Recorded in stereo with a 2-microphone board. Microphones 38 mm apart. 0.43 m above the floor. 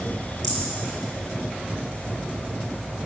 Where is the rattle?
15° left (ahead or behind), 7.5 m.